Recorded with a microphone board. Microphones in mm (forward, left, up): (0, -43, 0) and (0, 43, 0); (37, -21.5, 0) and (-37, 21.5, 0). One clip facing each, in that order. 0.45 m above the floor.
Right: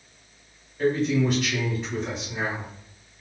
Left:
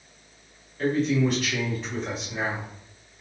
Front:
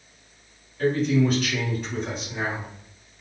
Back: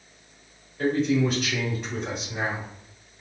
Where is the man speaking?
165° right, 1.5 m.